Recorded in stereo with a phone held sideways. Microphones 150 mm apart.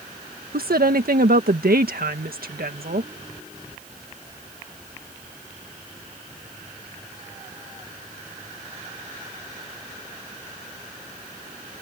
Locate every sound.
0.5 s a woman speaking: 80° right